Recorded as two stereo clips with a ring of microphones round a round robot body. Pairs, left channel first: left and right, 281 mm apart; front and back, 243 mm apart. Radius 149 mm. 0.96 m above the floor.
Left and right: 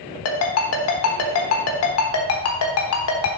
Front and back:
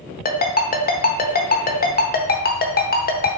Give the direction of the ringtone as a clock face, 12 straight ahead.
10 o'clock.